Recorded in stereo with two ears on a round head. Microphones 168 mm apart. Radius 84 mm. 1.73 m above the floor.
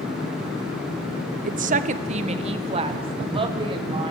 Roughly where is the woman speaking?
Right.